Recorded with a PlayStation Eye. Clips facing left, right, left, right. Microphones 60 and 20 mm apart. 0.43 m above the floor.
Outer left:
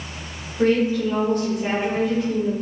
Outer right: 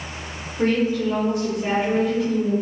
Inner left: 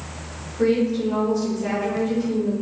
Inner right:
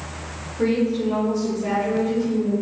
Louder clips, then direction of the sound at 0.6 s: Outer left 2 dB, inner left 1 dB; centre (ahead or behind).